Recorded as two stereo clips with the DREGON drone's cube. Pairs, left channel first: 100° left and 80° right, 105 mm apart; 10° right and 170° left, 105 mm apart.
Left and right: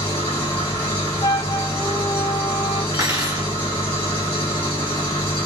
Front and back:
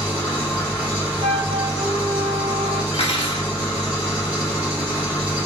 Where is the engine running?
90° left, 1.4 m.